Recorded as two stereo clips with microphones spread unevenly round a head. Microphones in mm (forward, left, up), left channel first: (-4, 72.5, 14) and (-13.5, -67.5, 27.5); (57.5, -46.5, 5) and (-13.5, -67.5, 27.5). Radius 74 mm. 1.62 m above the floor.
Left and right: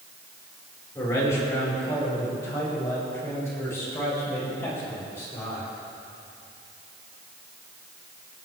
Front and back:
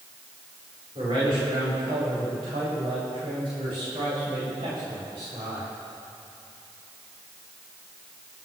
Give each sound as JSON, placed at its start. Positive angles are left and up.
{"t": 0.9, "sound": "a man speaking", "azimuth_deg": 155, "distance_m": 5.0}